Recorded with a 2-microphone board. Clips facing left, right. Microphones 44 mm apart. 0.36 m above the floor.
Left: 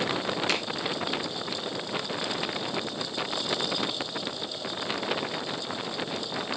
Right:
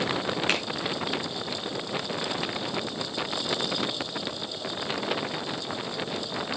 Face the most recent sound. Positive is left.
turn(degrees=-40)  # may be behind; listen again after turning